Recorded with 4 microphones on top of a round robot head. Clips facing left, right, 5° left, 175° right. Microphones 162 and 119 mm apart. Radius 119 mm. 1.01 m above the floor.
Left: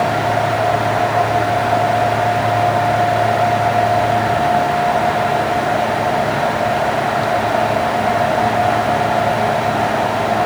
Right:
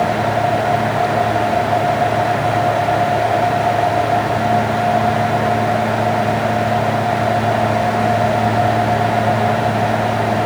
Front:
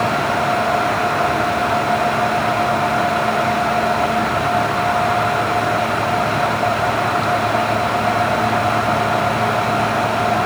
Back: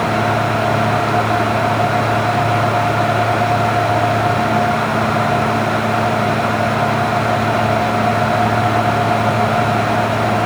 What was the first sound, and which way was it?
Only background noise.